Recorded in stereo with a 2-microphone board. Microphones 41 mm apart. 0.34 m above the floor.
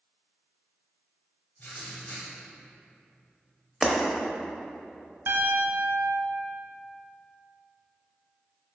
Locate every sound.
1.6 s writing: 35° left (ahead or behind), 1.2 m
3.8 s breaking glass: 15° right (ahead or behind), 0.6 m
5.3 s a piano: 65° right (ahead or behind), 0.8 m